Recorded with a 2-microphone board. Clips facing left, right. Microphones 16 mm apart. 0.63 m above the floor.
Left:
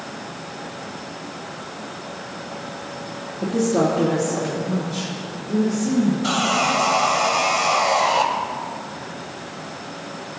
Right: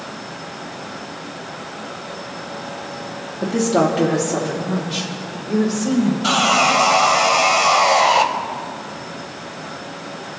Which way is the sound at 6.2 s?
25° right (ahead or behind).